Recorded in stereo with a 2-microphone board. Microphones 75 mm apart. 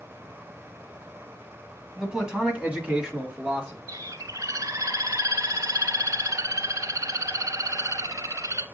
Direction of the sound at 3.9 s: 55° right (ahead or behind).